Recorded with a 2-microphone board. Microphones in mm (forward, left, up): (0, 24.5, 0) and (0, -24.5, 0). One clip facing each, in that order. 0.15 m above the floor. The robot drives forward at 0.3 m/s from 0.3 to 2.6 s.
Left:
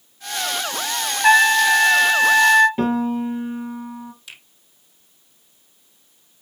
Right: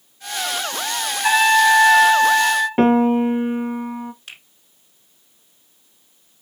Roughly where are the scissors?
I don't hear scissors.